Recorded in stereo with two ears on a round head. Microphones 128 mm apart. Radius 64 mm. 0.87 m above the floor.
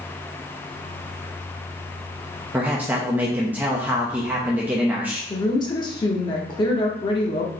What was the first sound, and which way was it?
A man speaking, 15° right (ahead or behind).